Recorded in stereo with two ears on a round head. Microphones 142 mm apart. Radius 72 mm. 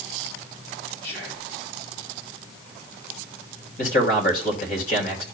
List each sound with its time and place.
1.0 s whispering: 70° left (ahead or behind), 5 m
3.8 s a man speaking: 55° left (ahead or behind), 3.5 m